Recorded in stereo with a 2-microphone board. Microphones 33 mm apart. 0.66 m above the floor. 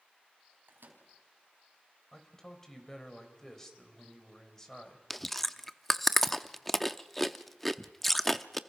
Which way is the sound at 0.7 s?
85° right.